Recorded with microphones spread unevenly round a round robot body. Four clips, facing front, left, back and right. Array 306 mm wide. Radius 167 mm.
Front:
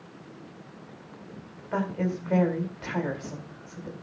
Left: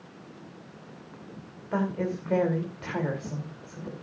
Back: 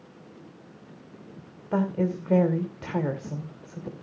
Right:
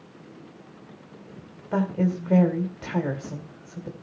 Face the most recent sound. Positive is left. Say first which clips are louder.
# right 4 dB, back 3 dB
turn(degrees=-150)